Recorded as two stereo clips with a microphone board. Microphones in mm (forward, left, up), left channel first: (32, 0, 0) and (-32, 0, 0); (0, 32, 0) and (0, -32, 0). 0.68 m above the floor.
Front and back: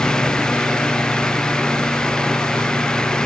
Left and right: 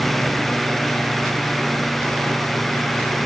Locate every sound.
Only background noise.